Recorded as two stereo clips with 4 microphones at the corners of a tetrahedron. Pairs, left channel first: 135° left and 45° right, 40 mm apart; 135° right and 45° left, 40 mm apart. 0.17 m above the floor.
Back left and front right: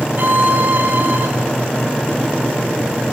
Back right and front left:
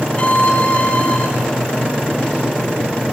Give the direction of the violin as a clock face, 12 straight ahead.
3 o'clock.